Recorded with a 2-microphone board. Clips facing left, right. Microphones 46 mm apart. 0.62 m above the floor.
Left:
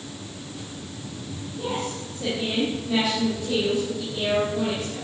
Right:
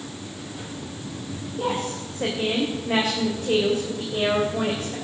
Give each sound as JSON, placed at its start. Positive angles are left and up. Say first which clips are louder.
{"t": 1.6, "sound": "a woman speaking", "louder": "right 3 dB", "side_deg": -50, "distance_m": 3.5}